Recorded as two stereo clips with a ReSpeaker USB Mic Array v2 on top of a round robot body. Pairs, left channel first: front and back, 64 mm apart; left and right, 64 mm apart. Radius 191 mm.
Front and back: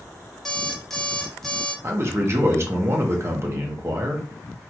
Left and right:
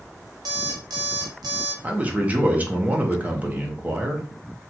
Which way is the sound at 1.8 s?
150° right.